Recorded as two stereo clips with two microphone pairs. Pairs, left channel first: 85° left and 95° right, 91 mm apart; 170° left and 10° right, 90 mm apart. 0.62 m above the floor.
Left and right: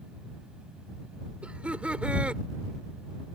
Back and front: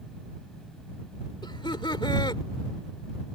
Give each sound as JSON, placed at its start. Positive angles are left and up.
{"t": 1.4, "sound": "laughter", "azimuth_deg": -170}